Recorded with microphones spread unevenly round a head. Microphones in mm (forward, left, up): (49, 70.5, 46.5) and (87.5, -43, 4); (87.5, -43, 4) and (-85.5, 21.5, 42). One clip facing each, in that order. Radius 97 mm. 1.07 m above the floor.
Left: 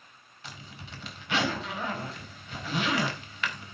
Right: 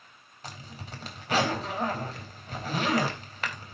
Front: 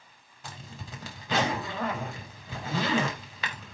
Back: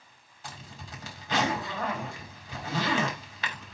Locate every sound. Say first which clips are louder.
0.4 s a zipper: right 3 dB, front 1 dB; 20° right, 4 m